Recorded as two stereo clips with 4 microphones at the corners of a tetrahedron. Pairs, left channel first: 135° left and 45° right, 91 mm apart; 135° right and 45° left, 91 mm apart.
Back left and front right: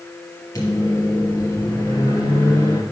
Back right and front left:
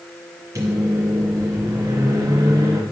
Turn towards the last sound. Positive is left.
turn(degrees=95)